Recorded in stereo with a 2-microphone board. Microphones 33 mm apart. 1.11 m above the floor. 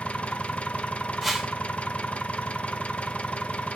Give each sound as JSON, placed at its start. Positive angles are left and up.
{"t": 0.0, "sound": "an engine running", "side_deg": 40, "distance_m": 0.8}
{"t": 1.2, "sound": "a whoosh", "side_deg": 0, "distance_m": 3.0}